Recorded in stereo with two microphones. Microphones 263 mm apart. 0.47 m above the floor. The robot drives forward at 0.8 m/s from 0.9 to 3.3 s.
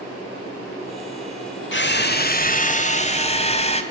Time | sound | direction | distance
1.7 | a drill | 45° left (ahead or behind) | 1.3 m